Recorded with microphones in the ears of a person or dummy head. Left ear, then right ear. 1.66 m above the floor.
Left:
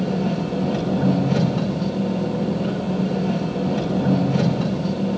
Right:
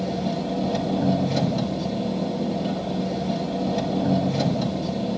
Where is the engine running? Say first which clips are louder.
Left 2 dB; 45° left (ahead or behind), 5 m.